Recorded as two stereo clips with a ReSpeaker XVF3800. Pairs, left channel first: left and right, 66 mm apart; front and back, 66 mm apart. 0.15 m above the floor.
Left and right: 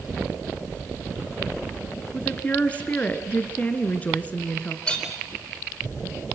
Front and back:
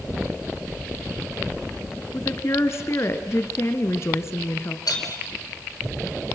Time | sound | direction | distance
2.1 | a woman speaking | 25° left | 1.7 m
4.9 | a clink | 15° left | 4.5 m